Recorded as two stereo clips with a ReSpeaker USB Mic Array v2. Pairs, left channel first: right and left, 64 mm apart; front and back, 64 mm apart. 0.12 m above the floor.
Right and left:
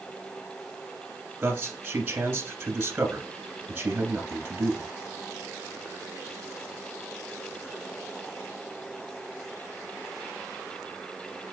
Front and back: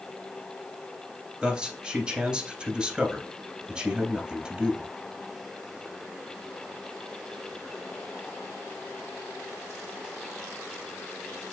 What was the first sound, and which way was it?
A man speaking, 115° left.